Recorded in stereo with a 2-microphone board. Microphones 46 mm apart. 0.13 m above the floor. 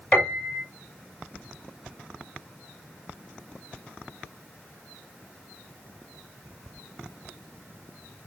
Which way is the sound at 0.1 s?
15° left (ahead or behind).